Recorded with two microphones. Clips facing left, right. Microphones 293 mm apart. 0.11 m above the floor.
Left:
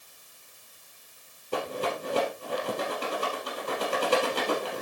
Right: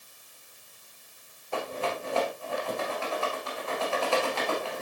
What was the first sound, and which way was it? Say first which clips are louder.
A rattle: left 2 dB; 40° left (ahead or behind).